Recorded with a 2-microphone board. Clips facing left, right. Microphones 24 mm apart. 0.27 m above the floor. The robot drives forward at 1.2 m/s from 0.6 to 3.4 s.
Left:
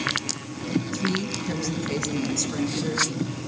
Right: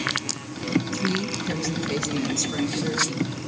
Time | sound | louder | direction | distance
0.9 | a woman speaking | right 1 dB | centre (ahead or behind) | 2 m